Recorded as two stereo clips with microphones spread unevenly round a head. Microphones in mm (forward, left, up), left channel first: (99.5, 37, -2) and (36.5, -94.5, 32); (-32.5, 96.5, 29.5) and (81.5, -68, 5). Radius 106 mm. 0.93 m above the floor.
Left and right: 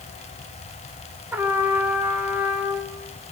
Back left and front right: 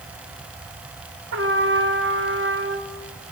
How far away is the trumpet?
About 2.5 m.